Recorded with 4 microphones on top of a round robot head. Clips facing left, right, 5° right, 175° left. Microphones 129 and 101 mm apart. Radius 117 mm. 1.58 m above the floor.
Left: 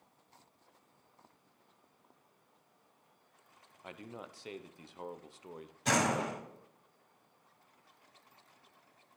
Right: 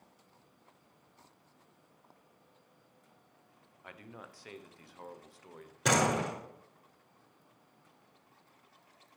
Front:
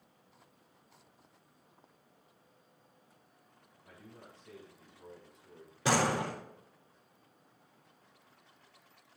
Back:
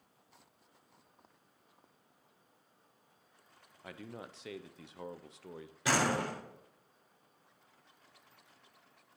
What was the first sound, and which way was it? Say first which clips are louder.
A man speaking: left 3 dB, back 8 dB; 160° left.